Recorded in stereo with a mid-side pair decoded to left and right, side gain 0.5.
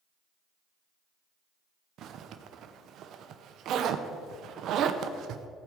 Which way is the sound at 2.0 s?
65° right.